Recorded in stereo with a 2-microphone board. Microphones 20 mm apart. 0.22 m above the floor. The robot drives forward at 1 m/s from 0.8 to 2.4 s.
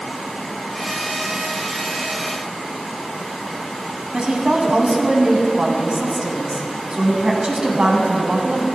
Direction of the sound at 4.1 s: 45° right (ahead or behind).